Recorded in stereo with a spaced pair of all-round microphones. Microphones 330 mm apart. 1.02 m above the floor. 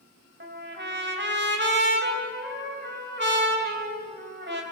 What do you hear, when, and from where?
0.4 s a trumpet: 35° right (ahead or behind), 2.5 m